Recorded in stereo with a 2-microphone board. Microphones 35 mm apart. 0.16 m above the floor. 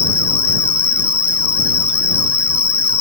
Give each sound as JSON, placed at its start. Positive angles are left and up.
{"t": 0.0, "sound": "an insect", "side_deg": 70}